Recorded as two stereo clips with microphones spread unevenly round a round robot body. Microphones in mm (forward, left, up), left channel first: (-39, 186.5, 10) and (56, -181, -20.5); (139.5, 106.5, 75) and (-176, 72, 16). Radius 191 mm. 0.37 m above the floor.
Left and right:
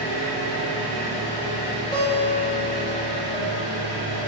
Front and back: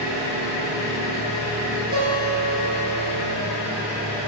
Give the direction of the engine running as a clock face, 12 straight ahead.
11 o'clock.